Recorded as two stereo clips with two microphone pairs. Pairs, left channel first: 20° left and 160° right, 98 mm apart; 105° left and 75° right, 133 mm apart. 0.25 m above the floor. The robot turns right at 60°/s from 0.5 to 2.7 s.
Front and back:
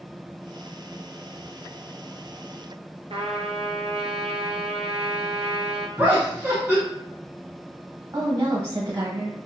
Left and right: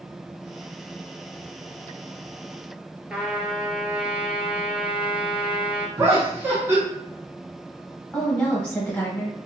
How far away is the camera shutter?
No camera shutter in this recording.